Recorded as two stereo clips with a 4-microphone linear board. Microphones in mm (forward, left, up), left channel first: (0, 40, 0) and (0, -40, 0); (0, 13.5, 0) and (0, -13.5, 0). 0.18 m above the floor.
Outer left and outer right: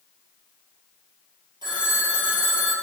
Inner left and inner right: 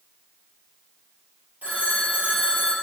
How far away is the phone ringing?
About 2 m.